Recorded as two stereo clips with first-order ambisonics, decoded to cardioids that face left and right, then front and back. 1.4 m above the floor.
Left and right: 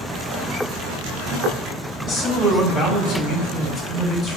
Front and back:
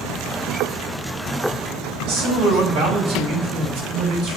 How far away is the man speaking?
About 4 m.